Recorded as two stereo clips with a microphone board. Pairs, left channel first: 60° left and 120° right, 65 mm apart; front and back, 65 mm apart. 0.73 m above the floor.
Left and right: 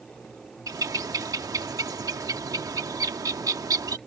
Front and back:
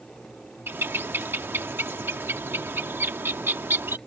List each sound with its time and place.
0.7 s a bird: 130° right